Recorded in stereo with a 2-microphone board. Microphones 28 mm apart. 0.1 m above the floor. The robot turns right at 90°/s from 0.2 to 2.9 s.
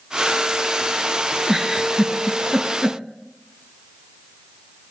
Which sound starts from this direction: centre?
A giggle, at 1.5 s.